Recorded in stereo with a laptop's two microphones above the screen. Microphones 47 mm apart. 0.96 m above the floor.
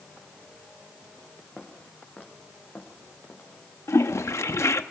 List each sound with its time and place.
1.6 s footsteps: 20° left (ahead or behind), 4.5 m; by 3.5 s 40° left (ahead or behind), 5.5 m
3.9 s a toilet flushing: 80° left, 0.7 m